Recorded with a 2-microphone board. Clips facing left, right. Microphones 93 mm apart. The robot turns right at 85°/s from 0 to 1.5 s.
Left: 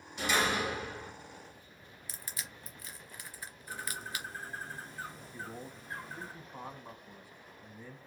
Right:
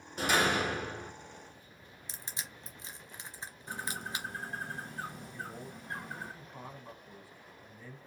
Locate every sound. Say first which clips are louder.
0.2 s a door slam: right 2 dB; 130° right, 1.8 m; by 1.1 s 50° right, 1.8 m
2.1 s crushing: right 1 dB; 25° right (ahead or behind), 0.8 m
3.7 s a bird: right 2 dB; 65° right (ahead or behind), 1.7 m
5.3 s a man speaking: right 1 dB; 20° left (ahead or behind), 1.2 m